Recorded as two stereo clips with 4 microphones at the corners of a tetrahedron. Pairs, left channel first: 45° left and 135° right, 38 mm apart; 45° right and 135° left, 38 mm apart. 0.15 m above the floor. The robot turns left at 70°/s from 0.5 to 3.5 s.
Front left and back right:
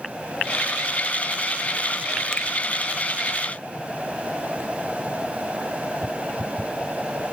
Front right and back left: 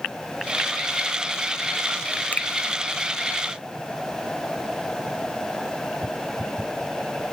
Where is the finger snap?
15° right, 1.6 m; by 2.5 s 25° right, 1.6 m.